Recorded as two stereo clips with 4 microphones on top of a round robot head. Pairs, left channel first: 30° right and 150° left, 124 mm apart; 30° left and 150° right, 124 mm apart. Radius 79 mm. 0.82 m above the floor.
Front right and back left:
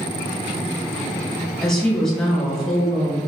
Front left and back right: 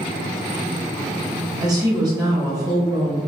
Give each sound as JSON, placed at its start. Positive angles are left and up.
{"t": 1.6, "sound": "a woman speaking", "azimuth_deg": -115, "distance_m": 1.0}